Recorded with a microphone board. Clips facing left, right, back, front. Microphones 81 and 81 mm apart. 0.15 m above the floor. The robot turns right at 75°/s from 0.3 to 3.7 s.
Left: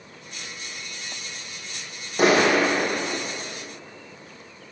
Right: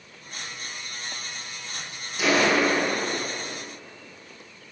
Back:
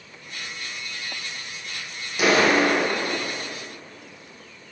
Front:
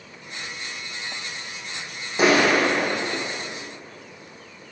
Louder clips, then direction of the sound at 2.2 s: Left 3 dB, front 1 dB; 55° left.